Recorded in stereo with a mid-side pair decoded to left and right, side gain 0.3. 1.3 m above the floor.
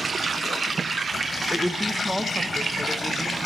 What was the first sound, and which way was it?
A woman speaking, 5° right.